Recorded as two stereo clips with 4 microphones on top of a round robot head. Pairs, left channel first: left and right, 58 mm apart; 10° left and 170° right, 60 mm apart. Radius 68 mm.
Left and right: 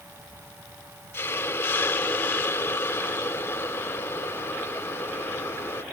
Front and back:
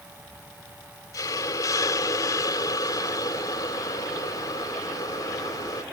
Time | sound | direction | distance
1.1 | a hiss | 40° left | ?